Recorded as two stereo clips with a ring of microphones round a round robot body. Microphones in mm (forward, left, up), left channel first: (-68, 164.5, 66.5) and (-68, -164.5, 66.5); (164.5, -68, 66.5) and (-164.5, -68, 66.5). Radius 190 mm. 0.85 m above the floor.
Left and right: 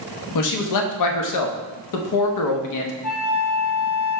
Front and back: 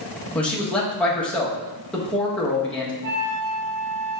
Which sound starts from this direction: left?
A man speaking, at 0.3 s.